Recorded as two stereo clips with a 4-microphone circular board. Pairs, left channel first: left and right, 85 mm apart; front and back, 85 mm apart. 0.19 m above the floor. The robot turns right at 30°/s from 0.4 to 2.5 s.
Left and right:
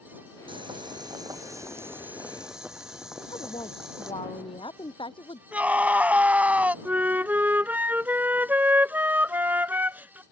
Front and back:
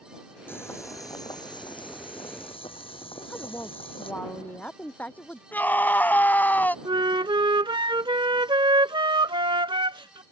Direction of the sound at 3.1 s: 75° left.